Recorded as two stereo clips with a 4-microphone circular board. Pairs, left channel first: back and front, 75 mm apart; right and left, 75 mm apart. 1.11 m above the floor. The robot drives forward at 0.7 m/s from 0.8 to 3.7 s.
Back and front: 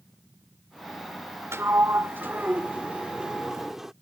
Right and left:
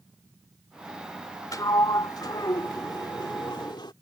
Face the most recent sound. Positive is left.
turn(degrees=-85)